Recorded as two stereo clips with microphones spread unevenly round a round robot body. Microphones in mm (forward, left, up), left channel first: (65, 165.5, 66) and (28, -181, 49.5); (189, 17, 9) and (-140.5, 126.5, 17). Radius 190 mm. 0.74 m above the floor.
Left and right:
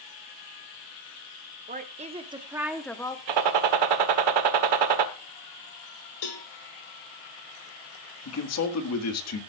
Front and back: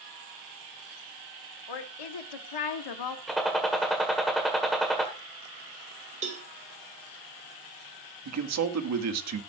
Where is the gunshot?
110° right, 1.5 m.